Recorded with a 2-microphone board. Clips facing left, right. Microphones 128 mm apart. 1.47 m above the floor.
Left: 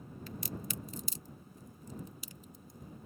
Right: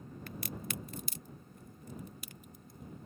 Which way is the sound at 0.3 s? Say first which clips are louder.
Even; 60° right (ahead or behind).